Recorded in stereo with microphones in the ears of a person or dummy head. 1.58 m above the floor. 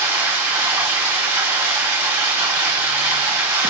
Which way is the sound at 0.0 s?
20° right (ahead or behind).